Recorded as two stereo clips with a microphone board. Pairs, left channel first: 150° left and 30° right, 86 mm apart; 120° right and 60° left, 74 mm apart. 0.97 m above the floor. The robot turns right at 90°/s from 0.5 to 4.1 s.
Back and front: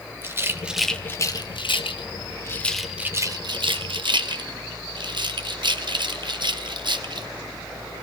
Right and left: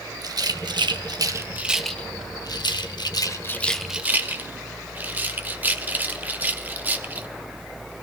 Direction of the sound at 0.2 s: 30° left.